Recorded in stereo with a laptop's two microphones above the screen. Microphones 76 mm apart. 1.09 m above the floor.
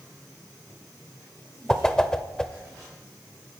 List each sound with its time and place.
1.7 s a whoosh: 10° left (ahead or behind), 1.1 m